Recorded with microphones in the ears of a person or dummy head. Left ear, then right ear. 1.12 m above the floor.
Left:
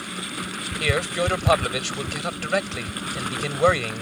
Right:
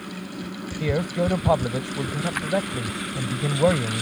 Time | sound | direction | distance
0.8 | a man speaking | 70° left (ahead or behind) | ?